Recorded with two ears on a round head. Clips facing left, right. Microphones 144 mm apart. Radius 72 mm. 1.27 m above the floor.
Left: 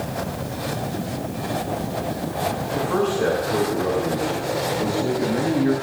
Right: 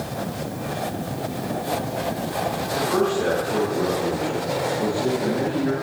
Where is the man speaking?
5° left (ahead or behind), 9 m.